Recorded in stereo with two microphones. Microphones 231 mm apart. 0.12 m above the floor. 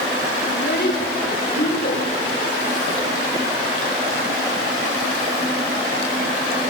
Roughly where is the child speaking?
Left.